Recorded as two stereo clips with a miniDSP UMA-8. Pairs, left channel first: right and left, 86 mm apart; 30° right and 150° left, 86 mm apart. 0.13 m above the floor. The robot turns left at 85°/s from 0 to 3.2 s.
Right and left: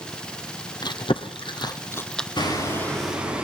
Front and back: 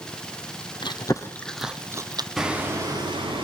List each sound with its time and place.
0.8 s chewing: 55° right, 1.2 m; by 2.3 s 175° right, 1.2 m
2.4 s hammering: 120° right, 9 m; by 3.5 s 165° left, 9 m